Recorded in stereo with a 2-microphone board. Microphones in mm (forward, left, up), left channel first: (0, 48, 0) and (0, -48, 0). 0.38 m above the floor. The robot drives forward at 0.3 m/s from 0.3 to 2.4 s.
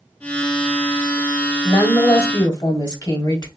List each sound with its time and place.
1.6 s a woman speaking: 40° left (ahead or behind), 1.3 m; by 3.5 s 45° left (ahead or behind), 1.3 m